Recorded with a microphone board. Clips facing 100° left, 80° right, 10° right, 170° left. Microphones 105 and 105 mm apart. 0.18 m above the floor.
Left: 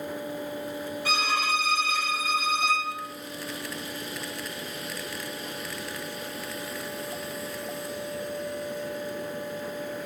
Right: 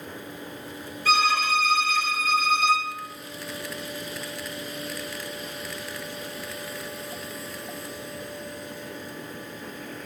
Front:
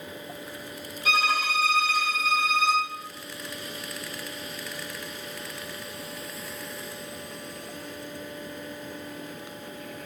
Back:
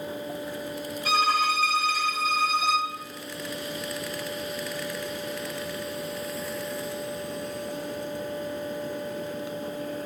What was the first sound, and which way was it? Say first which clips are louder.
A violin: right 6 dB, back 2 dB; 120° left.